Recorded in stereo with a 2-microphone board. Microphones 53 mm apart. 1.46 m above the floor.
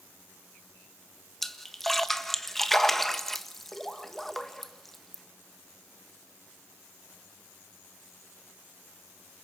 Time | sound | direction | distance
1.4 | a splash | 5° left (ahead or behind) | 1.4 m